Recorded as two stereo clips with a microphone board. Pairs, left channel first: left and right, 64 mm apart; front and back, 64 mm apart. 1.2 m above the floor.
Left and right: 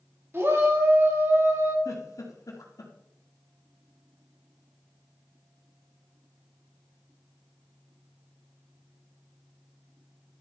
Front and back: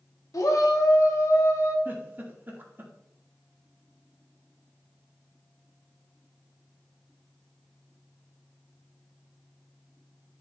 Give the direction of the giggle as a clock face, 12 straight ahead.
8 o'clock.